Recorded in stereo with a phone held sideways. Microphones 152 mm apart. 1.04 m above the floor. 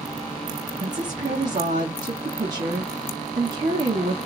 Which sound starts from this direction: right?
A woman speaking, at 0.8 s.